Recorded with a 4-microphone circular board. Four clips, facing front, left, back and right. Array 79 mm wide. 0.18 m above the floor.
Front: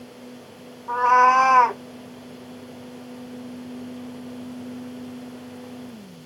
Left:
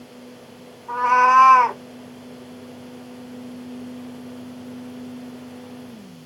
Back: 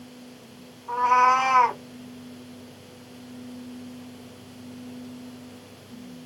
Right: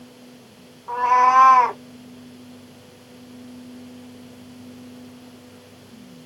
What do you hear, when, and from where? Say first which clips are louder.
0.9 s a cat meowing: left 1 dB, front 3 dB; 55° right, 3 m